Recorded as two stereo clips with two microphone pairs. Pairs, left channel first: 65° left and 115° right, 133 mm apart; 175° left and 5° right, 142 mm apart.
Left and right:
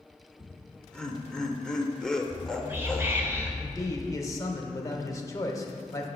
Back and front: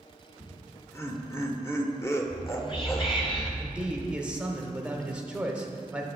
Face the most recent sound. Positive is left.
turn(degrees=65)